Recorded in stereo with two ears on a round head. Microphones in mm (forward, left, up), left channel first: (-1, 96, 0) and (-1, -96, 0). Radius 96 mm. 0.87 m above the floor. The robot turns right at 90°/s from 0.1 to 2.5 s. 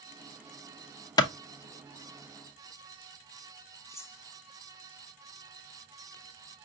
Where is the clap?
20° left (ahead or behind), 0.6 m.